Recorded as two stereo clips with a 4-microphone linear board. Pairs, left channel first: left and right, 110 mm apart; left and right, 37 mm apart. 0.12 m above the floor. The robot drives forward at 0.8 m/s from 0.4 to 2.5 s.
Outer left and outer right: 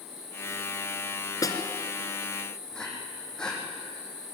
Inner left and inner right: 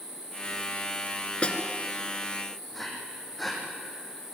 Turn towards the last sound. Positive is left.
turn(degrees=5)  # may be behind; listen again after turning